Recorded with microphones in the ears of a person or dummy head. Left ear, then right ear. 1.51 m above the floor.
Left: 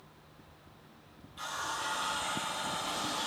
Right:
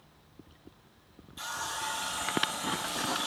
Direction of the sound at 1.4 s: 20° right (ahead or behind).